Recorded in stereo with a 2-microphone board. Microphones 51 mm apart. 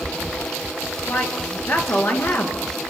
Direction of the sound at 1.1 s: 50° left (ahead or behind).